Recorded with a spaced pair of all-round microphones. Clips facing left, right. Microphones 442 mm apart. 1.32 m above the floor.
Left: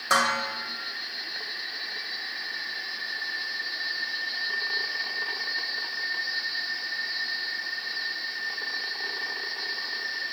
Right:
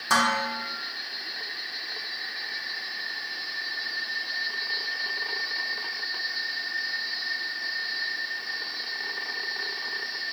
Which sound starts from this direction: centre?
Dishes clattering, at 0.1 s.